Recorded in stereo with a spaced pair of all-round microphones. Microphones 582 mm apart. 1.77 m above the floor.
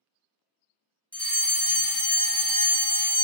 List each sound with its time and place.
1.1 s a fire alarm: 5° left (ahead or behind), 0.7 m